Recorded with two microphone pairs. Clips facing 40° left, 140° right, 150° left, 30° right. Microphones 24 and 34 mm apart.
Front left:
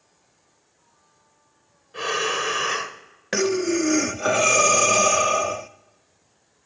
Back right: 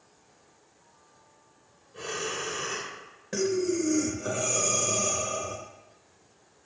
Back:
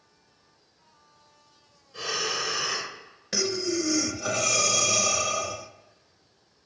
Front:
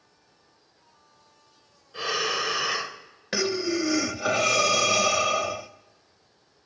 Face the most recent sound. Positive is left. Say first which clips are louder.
# front left 5 dB, front 2 dB
turn(degrees=30)